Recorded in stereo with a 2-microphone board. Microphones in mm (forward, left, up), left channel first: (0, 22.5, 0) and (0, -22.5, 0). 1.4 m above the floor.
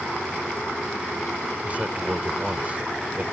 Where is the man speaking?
35° right (ahead or behind).